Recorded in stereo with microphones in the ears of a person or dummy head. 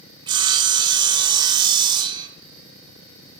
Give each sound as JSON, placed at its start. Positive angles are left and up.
{"t": 0.3, "sound": "sawing", "side_deg": -25, "distance_m": 0.6}